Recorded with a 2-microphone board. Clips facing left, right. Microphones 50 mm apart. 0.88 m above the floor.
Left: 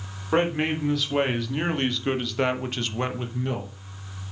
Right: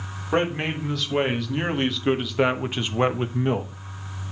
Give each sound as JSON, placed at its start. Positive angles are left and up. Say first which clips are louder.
{"t": 0.3, "sound": "a man speaking", "louder": "left 1 dB", "side_deg": 5, "distance_m": 3.5}